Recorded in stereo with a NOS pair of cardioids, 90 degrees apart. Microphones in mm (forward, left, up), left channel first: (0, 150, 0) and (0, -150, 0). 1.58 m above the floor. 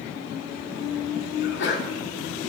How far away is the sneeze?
About 4.5 m.